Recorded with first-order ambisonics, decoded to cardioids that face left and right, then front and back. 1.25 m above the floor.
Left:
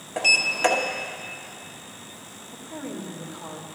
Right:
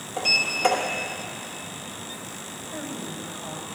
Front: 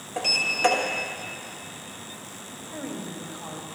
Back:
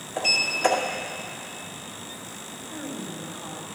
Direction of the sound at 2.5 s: 70° left.